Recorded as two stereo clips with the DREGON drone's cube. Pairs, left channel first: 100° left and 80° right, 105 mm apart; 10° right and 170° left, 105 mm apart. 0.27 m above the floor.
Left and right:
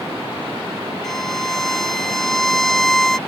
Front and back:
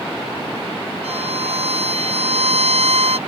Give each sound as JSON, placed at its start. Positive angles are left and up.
{"t": 1.0, "sound": "a violin", "azimuth_deg": -175}